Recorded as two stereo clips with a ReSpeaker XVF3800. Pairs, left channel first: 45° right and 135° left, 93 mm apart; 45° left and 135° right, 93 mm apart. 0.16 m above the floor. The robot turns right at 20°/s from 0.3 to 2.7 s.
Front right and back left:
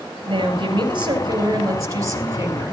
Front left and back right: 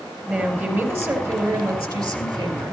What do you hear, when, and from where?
0.2 s a woman speaking: 155° left, 3.5 m; by 2.7 s 155° right, 3.5 m